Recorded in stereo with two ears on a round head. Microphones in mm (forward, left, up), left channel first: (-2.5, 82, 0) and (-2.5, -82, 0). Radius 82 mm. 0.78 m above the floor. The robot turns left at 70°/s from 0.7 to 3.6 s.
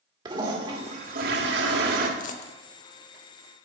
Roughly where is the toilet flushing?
Ahead right.